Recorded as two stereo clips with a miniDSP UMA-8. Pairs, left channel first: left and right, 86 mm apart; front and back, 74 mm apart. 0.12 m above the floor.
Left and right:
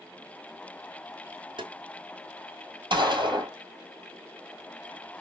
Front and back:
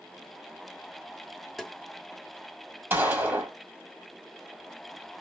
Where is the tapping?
90° right, 0.8 m.